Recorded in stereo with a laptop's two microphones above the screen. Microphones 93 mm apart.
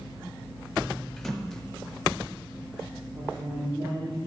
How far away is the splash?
About 0.7 m.